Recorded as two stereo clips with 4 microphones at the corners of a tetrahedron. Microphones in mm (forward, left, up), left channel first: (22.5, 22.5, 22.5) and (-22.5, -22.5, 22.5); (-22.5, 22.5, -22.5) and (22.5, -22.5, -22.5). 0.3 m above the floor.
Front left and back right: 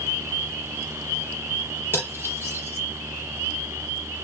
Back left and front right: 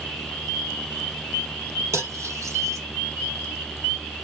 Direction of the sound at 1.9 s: 10° right.